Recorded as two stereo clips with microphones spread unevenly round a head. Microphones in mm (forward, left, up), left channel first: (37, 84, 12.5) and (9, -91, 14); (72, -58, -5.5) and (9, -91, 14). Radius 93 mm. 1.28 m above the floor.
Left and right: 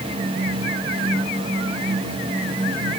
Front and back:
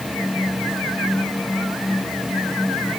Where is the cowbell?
I don't hear a cowbell.